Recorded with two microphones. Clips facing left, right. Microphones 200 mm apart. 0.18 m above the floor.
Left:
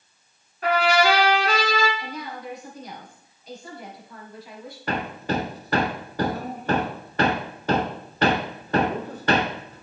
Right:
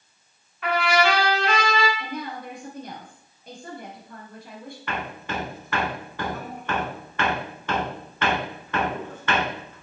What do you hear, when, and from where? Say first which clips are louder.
0.6 s a trumpet: left 2 dB; 40° left (ahead or behind), 1.9 m
2.0 s a woman speaking: right 2 dB; 50° right (ahead or behind), 3 m
4.9 s hammering: left 6 dB; 40° left (ahead or behind), 0.6 m